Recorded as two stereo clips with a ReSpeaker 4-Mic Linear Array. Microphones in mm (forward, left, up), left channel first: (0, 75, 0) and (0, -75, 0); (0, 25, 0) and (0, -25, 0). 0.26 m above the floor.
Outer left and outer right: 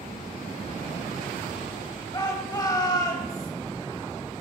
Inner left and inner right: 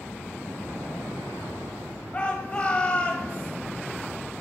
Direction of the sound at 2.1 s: 25° left (ahead or behind).